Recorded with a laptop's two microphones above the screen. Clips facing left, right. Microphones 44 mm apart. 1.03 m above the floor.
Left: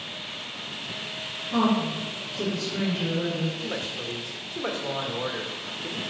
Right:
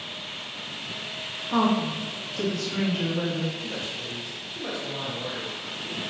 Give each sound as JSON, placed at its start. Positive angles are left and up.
{"t": 1.5, "sound": "a woman speaking", "side_deg": -75, "distance_m": 2.0}
{"t": 3.6, "sound": "a woman speaking", "side_deg": 70, "distance_m": 1.4}